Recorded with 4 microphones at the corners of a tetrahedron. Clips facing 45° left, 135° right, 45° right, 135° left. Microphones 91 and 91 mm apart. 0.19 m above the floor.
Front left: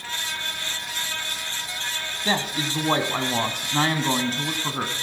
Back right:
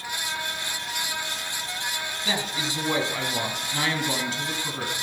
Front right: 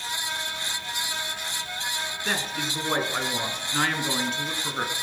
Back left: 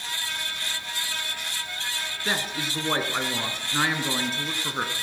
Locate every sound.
2.2 s a man speaking: 55° left, 1.5 m